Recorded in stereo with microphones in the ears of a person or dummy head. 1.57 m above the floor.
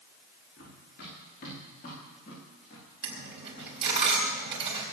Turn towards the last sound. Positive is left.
turn(degrees=-30)  # may be behind; listen again after turning